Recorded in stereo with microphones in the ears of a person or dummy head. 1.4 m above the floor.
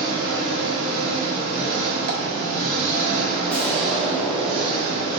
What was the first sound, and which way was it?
An engine running, 35° right (ahead or behind).